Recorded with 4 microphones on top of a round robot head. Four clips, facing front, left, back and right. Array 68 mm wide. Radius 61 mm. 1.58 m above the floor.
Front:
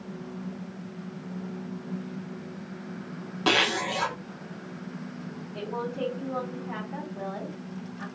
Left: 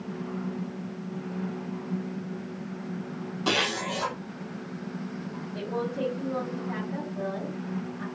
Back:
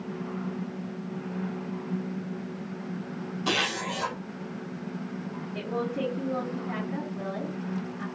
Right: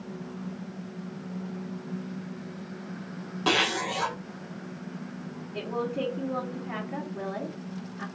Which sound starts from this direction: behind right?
A woman speaking, at 5.5 s.